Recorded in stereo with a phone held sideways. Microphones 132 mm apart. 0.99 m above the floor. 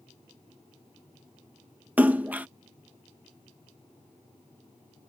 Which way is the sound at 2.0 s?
10° right (ahead or behind).